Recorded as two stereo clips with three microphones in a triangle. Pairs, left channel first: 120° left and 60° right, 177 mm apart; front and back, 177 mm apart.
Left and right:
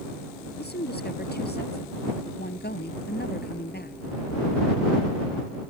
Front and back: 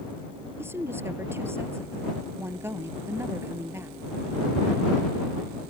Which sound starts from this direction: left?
A woman speaking, at 0.6 s.